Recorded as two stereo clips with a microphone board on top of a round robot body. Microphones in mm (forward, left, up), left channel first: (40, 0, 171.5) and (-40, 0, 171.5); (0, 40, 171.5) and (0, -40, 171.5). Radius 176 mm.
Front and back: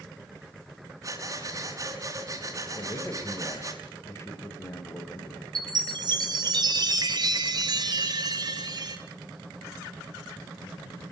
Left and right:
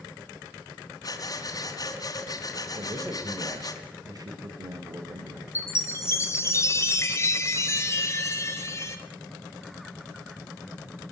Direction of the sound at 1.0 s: 135° left.